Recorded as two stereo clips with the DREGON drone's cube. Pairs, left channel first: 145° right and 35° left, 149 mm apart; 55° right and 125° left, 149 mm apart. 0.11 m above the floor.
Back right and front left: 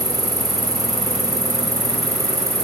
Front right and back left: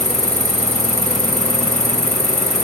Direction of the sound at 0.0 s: 30° right.